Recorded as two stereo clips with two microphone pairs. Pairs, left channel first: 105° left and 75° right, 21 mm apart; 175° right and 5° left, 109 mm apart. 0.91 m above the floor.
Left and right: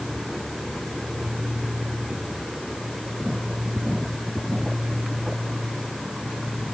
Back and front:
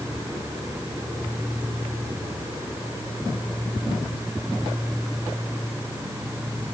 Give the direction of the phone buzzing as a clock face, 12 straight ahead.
I don't hear a phone buzzing.